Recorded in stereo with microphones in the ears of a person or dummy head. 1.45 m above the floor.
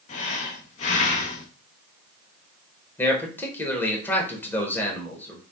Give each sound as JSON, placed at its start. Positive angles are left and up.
{"t": 0.1, "sound": "breathing", "side_deg": 45, "distance_m": 0.9}
{"t": 3.0, "sound": "a man speaking", "side_deg": 10, "distance_m": 1.3}